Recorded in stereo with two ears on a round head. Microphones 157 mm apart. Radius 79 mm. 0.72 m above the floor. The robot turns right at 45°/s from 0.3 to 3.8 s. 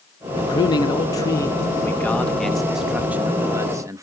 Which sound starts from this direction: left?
A man speaking, at 0.4 s.